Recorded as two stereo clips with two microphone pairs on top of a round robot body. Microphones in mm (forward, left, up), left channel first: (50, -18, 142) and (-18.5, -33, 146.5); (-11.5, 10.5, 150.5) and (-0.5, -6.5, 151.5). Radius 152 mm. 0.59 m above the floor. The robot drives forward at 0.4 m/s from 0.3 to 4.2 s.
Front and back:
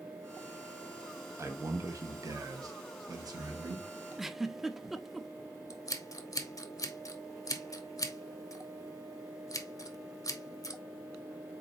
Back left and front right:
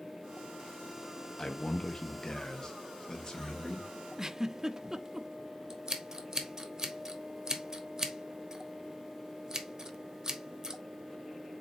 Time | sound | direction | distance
1.4 | a man speaking | 165° left | 1.1 m
4.2 | a giggle | 75° right | 0.7 m
5.7 | scissors | straight ahead | 1.2 m